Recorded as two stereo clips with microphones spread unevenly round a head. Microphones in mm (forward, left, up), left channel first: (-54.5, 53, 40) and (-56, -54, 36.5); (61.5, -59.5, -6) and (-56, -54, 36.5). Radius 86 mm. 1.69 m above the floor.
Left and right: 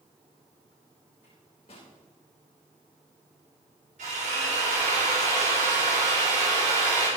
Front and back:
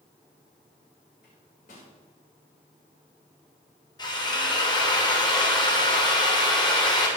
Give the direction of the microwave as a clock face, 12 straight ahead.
11 o'clock.